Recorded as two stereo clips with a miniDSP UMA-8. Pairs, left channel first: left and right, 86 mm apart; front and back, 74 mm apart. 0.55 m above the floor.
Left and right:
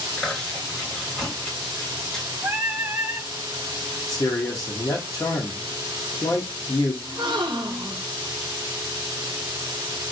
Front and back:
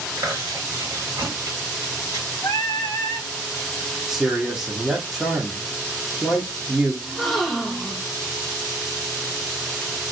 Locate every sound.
0.2 s chewing: 170° left, 1.7 m
2.4 s singing: 25° right, 0.7 m
4.1 s a man speaking: 100° left, 0.9 m
7.0 s a gasp: 90° right, 0.7 m